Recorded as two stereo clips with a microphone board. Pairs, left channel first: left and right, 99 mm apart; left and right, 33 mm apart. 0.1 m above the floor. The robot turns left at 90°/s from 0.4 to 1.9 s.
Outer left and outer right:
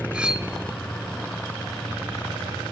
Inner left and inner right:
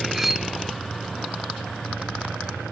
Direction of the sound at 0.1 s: 10° right (ahead or behind).